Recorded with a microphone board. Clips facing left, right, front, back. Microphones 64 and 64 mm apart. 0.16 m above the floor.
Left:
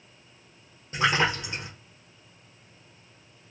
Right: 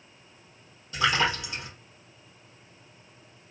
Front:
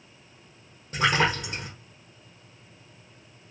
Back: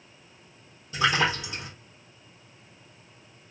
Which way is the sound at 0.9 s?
40° left.